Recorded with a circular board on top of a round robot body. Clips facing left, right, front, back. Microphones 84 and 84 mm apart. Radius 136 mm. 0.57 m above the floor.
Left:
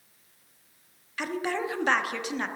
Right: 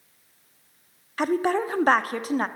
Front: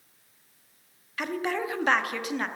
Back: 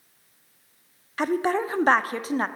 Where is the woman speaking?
130° right, 1.0 m.